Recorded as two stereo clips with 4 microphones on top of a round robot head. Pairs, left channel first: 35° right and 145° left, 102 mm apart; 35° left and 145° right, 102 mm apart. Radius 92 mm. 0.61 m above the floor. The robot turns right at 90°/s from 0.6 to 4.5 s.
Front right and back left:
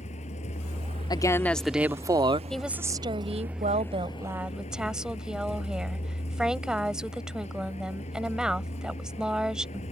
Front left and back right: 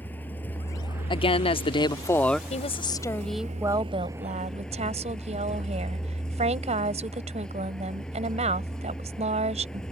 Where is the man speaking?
5° left; by 2.4 s 120° left.